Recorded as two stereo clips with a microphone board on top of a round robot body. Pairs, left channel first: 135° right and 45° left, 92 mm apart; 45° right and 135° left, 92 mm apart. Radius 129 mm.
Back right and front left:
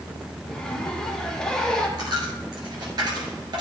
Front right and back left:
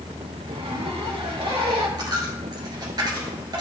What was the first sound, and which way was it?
A zipper, 140° left.